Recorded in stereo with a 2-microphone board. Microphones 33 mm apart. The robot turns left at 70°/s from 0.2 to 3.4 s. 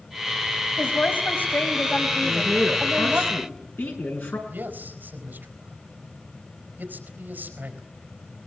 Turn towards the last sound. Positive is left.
turn(degrees=-60)  # may be behind; listen again after turning